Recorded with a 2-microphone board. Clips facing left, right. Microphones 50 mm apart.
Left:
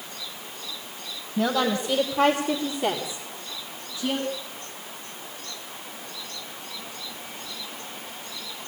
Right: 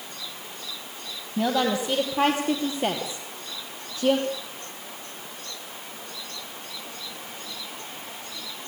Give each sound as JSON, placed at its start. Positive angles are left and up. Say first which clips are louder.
{"t": 1.4, "sound": "a woman speaking", "louder": "even", "side_deg": -10, "distance_m": 3.0}